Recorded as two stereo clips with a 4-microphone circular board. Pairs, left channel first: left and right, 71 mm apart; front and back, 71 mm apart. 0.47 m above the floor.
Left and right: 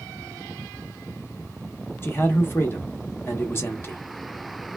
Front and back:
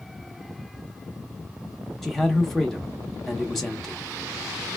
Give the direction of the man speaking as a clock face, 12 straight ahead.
9 o'clock.